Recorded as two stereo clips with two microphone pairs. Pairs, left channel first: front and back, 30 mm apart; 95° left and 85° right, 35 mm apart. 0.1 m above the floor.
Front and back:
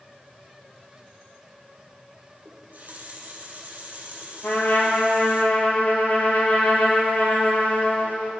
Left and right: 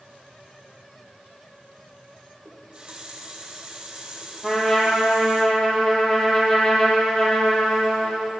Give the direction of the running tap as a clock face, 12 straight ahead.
5 o'clock.